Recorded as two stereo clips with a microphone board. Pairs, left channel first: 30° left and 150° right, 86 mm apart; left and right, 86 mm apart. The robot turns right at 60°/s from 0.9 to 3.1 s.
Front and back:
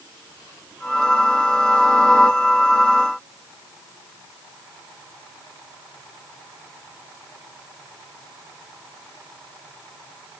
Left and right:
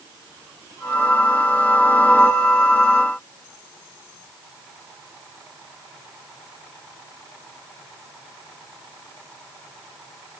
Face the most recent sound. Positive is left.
No sound to turn to.